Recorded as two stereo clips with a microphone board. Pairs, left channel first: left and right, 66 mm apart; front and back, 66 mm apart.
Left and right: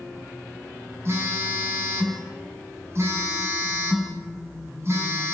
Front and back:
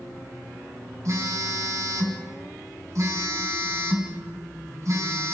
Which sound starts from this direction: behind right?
A phone buzzing, at 1.1 s.